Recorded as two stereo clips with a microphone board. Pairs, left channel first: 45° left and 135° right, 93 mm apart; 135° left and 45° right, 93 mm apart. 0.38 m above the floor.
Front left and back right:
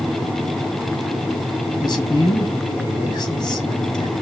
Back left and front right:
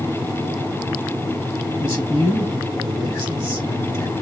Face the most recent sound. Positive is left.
turn(degrees=85)